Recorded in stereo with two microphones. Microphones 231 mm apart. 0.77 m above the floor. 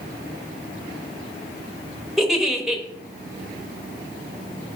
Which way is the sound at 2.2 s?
Centre (ahead or behind).